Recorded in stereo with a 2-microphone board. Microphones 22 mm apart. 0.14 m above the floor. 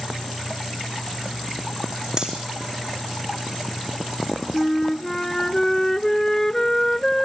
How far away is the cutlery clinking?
About 4.5 m.